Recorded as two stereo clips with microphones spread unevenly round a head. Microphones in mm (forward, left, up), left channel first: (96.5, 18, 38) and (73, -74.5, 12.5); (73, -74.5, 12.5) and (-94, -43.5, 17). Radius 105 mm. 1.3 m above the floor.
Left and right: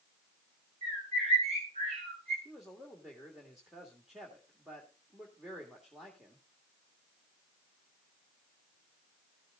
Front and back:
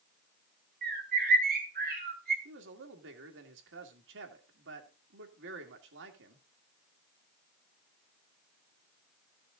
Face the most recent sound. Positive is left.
turn(degrees=165)